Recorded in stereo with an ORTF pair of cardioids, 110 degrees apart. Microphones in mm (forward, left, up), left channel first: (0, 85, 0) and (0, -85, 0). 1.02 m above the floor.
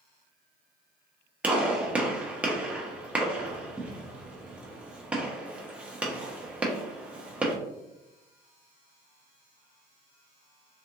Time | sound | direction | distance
1.4 | a gunshot | 5° right | 0.8 m